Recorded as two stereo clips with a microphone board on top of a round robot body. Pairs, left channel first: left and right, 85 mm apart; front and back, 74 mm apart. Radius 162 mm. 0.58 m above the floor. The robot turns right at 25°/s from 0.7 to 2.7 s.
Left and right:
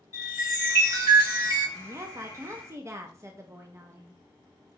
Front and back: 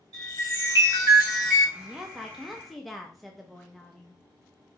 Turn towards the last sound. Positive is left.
turn(degrees=-90)